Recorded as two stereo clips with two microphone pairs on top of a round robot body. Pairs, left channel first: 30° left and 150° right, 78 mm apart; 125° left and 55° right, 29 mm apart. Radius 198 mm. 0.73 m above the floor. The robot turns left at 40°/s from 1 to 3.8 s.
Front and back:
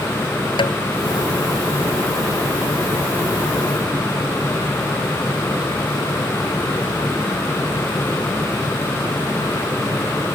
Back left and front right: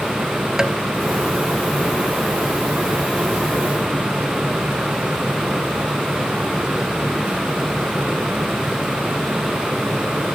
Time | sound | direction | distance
0.6 | tapping | 20° left | ?